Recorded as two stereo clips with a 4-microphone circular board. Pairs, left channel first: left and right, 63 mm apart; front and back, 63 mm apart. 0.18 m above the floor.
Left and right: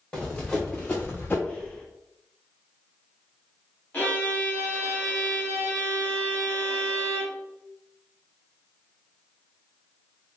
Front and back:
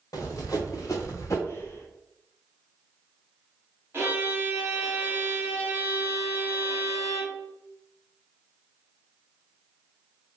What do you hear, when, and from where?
0.1 s running footsteps: 15° left, 1.6 m; by 1.4 s 35° left, 1.1 m
1.5 s breathing: 25° left, 0.9 m
3.9 s a violin: 145° left, 1.6 m